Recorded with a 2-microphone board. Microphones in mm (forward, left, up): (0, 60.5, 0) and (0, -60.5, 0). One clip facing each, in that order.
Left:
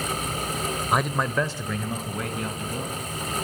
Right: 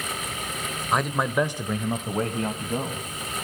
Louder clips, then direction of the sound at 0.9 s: Right 1 dB; 5° left (ahead or behind).